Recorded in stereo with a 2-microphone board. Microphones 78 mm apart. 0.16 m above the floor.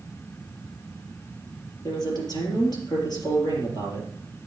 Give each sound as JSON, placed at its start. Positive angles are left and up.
{"t": 1.8, "sound": "a man speaking", "side_deg": 60, "distance_m": 4.5}